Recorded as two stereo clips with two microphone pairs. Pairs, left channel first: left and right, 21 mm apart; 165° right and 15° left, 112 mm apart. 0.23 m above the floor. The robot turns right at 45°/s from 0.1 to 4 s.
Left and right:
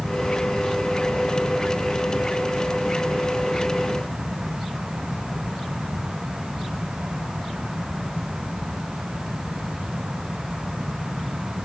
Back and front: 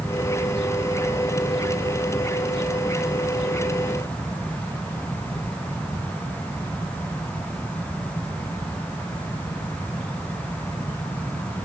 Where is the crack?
No crack in this recording.